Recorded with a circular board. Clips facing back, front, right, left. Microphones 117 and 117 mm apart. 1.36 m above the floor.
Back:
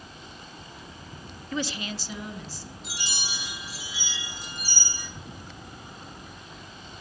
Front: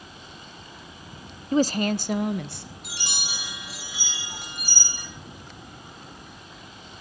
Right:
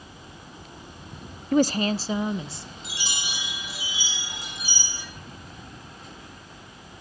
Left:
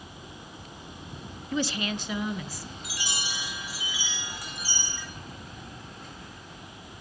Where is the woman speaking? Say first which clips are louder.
Front 10 dB, right 9 dB; 55° right, 0.5 m; by 2.7 s 25° right, 1.8 m.